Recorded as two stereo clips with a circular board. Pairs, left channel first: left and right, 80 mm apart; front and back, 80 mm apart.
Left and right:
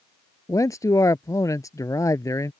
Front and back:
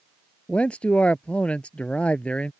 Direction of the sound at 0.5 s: 70° left.